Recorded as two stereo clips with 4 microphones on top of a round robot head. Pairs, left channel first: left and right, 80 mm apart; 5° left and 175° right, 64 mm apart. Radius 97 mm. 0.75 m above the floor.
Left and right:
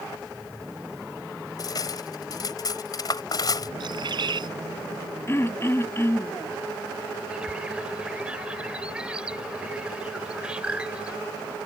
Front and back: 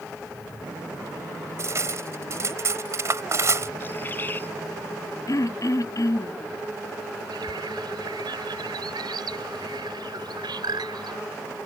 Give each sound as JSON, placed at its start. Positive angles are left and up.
{"t": 1.6, "sound": "cutlery clinking", "azimuth_deg": 135}
{"t": 3.8, "sound": "a bird", "azimuth_deg": -65}
{"t": 5.3, "sound": "throat clearing", "azimuth_deg": 30}
{"t": 7.3, "sound": "a bird", "azimuth_deg": -170}